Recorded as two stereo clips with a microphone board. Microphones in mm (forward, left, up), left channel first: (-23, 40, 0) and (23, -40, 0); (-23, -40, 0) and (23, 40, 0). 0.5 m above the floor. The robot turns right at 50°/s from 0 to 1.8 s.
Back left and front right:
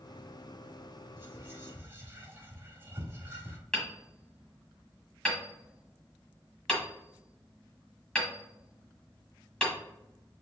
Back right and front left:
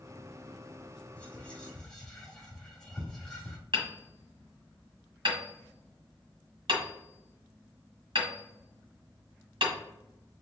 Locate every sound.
1.2 s whispering: 80° right, 1.2 m; by 3.6 s 50° right, 1.2 m
3.7 s hammering: 40° left, 1.4 m